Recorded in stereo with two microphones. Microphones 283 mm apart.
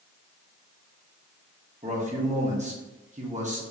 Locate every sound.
1.8 s a man speaking: 25° right (ahead or behind), 0.9 m